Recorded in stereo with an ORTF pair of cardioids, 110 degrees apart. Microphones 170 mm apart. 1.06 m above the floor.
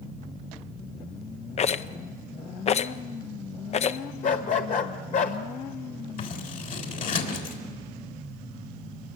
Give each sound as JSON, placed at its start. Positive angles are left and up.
{"t": 1.6, "sound": "a rattle", "azimuth_deg": 40, "distance_m": 0.6}
{"t": 4.2, "sound": "a dog barking", "azimuth_deg": 50, "distance_m": 1.7}
{"t": 6.2, "sound": "scissors", "azimuth_deg": 50, "distance_m": 3.5}